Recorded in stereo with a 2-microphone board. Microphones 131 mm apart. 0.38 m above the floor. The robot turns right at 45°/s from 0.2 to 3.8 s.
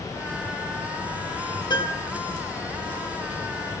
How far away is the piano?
About 2 m.